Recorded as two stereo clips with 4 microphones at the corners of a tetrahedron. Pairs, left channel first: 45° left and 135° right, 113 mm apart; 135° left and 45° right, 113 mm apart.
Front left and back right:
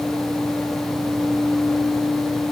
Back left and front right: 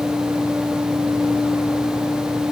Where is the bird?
No bird in this recording.